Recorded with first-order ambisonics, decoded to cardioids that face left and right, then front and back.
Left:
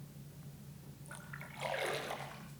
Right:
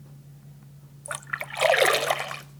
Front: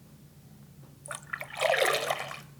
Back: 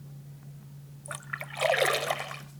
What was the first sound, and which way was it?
A splash, 90° right.